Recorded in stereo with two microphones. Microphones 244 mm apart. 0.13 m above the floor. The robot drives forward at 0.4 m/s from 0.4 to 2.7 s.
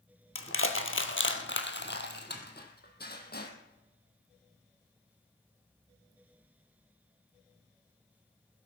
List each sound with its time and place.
0.3 s crushing: 60° left (ahead or behind), 1.5 m; by 3.5 s 40° left (ahead or behind), 2 m